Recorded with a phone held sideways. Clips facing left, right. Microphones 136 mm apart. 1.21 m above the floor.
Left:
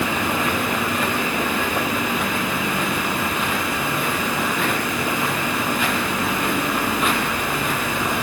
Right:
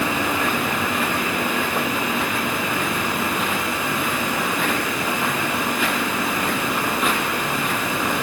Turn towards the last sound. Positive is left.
No sound to turn to.